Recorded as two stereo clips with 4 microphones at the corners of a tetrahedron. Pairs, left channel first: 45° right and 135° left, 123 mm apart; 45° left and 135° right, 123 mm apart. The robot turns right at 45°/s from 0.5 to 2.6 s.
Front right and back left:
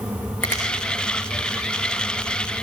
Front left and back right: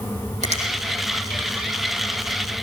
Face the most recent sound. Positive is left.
turn(degrees=-20)